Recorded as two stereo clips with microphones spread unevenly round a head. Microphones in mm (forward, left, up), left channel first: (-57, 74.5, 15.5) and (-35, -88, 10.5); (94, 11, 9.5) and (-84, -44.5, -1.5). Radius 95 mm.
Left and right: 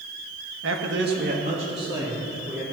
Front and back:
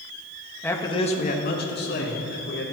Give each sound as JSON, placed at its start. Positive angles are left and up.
{"t": 0.6, "sound": "a man speaking", "azimuth_deg": -65, "distance_m": 1.5}